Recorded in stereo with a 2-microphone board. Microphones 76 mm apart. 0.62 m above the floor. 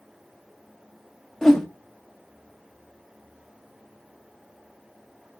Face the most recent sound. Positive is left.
turn(degrees=5)  # may be behind; listen again after turning